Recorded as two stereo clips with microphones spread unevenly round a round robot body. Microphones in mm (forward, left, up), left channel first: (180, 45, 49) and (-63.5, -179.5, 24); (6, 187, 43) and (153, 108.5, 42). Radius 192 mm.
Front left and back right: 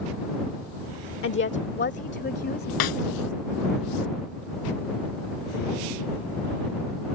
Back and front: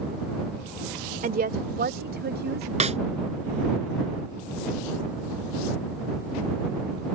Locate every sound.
1.2 s a woman speaking: 10° right; by 2.7 s 20° right
2.8 s a snare drum: 25° left